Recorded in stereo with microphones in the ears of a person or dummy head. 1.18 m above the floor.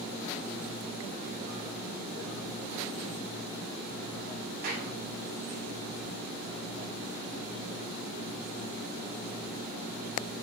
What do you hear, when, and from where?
4.6 s a clap: 55° right (ahead or behind), 9 m